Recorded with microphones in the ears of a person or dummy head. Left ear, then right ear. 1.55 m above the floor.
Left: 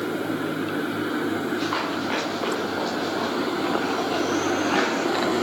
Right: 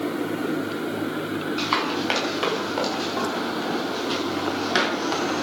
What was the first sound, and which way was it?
Running footsteps, 70° right (ahead or behind).